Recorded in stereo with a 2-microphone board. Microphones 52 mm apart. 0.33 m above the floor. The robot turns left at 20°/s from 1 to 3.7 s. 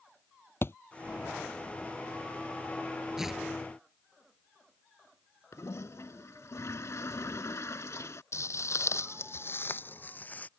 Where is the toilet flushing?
75° left (ahead or behind).